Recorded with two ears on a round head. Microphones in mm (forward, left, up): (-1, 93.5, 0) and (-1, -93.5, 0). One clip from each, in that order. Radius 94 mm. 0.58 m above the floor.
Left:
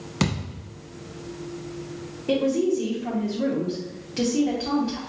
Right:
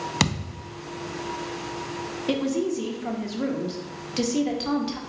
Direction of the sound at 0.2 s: 35° right (ahead or behind).